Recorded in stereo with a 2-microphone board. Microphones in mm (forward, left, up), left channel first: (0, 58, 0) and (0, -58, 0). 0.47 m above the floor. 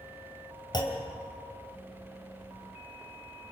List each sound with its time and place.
0.7 s a clunk: 40° left (ahead or behind), 3 m